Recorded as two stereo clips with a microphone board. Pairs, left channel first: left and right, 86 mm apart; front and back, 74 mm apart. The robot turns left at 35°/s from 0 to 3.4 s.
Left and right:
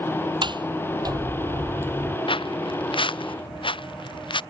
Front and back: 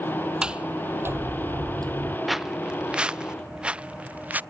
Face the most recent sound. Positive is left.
turn(degrees=110)